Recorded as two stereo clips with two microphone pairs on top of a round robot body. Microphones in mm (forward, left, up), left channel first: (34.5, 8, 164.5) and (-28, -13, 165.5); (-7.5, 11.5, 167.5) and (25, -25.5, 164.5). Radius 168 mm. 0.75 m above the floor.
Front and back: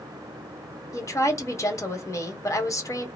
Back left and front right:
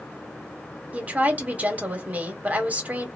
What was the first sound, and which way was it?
A woman speaking, straight ahead.